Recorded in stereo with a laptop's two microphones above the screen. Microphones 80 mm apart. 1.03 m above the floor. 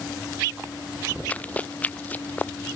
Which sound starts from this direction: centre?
Running footsteps, at 1.3 s.